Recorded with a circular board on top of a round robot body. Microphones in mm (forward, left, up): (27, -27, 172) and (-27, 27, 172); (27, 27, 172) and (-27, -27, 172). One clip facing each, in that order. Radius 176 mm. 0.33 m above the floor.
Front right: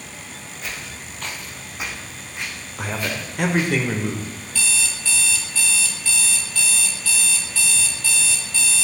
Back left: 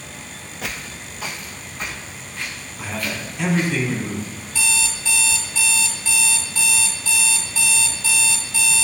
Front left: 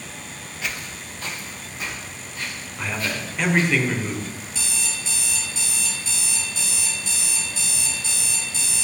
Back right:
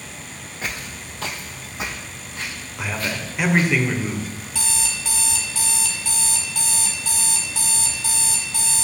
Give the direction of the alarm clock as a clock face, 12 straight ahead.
5 o'clock.